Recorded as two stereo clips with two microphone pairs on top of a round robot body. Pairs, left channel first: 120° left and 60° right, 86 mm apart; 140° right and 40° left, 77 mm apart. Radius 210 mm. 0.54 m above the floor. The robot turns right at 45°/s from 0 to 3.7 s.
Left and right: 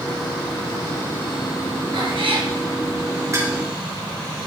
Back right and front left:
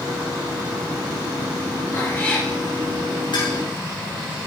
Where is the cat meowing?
85° right, 5 m; by 2.5 s 60° right, 5 m.